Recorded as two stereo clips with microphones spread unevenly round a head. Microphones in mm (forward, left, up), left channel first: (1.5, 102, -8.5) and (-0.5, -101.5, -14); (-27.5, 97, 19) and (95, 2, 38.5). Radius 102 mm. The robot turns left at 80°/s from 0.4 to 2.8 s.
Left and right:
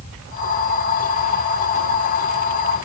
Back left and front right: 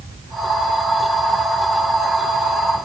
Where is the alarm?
I don't hear an alarm.